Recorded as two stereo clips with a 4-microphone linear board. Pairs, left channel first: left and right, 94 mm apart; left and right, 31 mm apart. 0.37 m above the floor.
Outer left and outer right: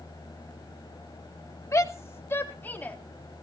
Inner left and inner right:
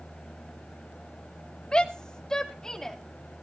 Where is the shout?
35° left (ahead or behind), 1.4 m; by 3.0 s 20° left (ahead or behind), 2.5 m.